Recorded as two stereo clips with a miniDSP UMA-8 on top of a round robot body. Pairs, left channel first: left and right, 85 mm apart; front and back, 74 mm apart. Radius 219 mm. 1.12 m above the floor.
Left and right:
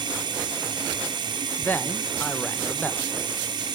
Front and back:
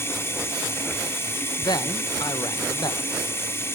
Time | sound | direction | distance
0.0 | running water | 60° right | 4 m
1.6 | a man speaking | 20° left | 2 m